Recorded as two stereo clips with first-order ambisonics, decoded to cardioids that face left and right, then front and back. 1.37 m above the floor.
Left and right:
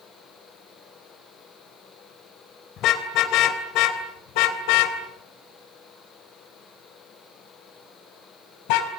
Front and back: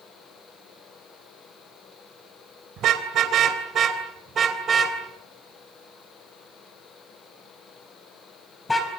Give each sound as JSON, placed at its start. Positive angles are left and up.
{"t": 2.8, "sound": "a car horn", "azimuth_deg": 135, "distance_m": 3.0}